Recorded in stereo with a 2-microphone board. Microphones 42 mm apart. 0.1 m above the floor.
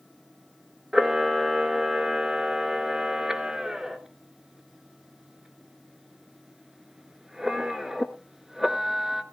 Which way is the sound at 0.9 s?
10° right (ahead or behind).